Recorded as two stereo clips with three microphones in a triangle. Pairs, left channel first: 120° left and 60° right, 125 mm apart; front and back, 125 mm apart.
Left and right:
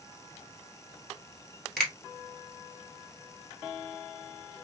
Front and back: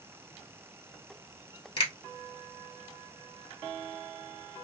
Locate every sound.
1.8 s a finger snap: 35° left, 1.9 m